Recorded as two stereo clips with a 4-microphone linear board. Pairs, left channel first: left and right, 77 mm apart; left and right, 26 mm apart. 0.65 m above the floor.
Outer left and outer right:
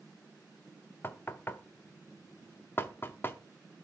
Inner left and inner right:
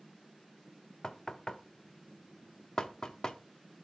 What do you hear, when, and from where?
1.0 s knocking: 30° left (ahead or behind), 0.6 m